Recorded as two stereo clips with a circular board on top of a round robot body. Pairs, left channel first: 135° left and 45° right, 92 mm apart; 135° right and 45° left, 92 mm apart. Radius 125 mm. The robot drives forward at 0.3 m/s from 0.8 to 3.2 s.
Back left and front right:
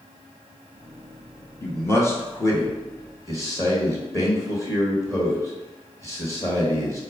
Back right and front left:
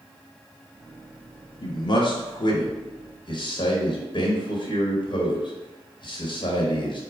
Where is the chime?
No chime in this recording.